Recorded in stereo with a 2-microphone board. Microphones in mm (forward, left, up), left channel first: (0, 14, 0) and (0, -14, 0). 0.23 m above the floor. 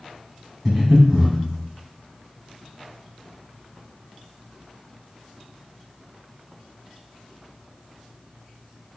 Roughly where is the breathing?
Centre.